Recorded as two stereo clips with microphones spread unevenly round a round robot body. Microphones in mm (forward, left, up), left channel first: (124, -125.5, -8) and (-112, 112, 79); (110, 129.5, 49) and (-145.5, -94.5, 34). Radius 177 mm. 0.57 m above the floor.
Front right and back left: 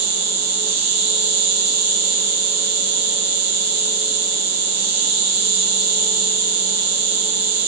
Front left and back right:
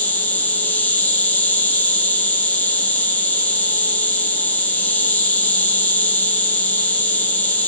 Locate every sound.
0.0 s an insect: 125° left, 1.7 m